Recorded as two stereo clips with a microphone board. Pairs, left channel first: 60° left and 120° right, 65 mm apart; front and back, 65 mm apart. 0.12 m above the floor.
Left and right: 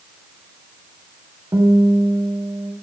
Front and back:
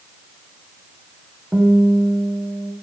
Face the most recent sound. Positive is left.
turn(degrees=-110)